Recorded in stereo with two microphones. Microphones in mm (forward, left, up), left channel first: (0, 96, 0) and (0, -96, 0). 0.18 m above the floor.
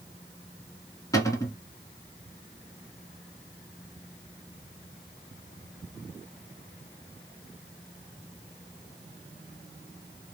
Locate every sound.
1.1 s a cupboard door: 20° left (ahead or behind), 1.2 m